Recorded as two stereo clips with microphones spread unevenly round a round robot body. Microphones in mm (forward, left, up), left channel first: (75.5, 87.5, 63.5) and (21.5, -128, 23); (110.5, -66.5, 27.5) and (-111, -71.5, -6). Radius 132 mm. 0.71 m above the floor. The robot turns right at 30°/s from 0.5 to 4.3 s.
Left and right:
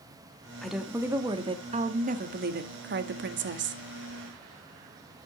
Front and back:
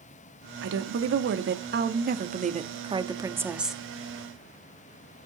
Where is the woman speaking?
170° left, 0.9 m; by 3.8 s 95° right, 0.9 m.